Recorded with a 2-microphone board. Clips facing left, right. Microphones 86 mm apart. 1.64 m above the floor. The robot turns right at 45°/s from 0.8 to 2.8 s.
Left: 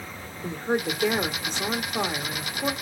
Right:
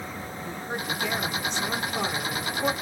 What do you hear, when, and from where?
0.4 s a woman speaking: 95° left, 1.3 m; by 2.7 s 175° right, 1.3 m